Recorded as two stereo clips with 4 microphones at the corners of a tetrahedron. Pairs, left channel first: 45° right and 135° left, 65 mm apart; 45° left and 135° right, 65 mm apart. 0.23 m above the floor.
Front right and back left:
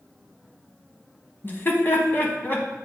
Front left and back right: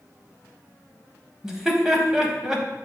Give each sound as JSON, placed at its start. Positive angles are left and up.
{"t": 1.4, "sound": "laughter", "azimuth_deg": -60, "distance_m": 1.2}